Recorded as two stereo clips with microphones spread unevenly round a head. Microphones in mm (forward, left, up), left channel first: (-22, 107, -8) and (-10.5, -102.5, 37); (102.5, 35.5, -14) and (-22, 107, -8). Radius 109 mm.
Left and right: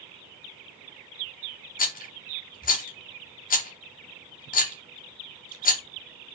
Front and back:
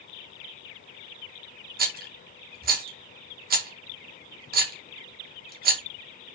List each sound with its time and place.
1.8 s a rattle: 145° left, 2 m